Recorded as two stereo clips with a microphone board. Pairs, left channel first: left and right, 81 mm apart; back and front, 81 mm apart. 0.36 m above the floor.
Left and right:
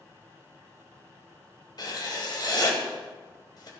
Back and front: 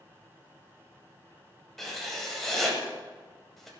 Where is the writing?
95° left, 1.9 m.